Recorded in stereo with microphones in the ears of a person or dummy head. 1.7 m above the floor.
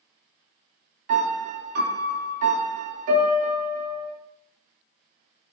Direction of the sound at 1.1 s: 45° right (ahead or behind).